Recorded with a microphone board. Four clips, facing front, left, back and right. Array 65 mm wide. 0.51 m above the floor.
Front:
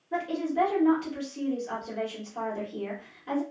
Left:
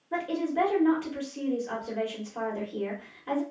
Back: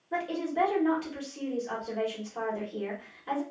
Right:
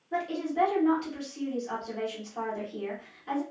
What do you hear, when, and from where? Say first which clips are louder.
0.1 s a woman speaking: left 1 dB, front 2 dB; 110° left, 1.3 m